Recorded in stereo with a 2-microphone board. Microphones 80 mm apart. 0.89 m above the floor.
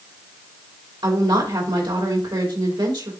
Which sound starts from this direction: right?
A woman speaking, at 1.0 s.